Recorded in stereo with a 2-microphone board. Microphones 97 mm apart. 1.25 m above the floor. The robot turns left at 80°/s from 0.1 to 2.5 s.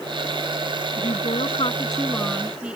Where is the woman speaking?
115° left; by 2.8 s 10° right.